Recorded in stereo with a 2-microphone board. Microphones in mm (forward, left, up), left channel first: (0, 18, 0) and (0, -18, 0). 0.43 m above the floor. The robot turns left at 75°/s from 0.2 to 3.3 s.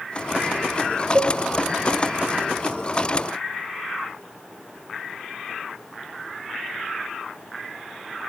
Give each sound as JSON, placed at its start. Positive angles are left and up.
{"t": 1.1, "sound": "a cowbell", "side_deg": -80, "distance_m": 0.6}